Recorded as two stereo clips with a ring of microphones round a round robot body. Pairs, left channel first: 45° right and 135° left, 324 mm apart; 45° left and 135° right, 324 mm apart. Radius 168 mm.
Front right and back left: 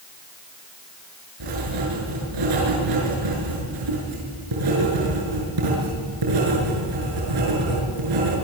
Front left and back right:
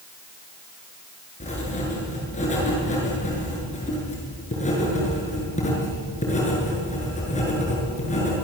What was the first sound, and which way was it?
Writing, 115° left.